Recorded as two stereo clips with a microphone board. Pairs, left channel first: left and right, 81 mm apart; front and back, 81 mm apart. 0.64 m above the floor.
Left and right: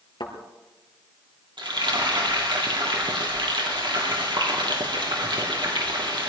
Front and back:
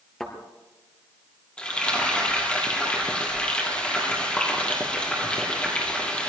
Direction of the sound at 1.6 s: 80° right.